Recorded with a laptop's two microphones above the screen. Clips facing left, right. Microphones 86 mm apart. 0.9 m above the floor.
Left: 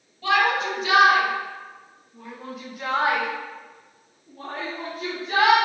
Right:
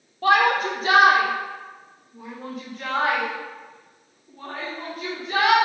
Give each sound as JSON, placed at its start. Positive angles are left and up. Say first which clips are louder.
{"t": 0.2, "sound": "a shout", "louder": "right 3 dB", "side_deg": -45, "distance_m": 1.5}